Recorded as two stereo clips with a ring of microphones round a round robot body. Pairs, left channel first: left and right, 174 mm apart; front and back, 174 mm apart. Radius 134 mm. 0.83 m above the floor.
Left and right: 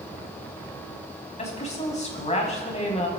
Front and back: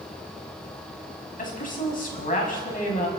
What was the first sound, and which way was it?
A woman speaking, 40° left.